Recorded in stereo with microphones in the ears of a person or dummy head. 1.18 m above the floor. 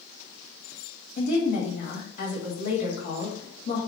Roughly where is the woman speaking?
Left.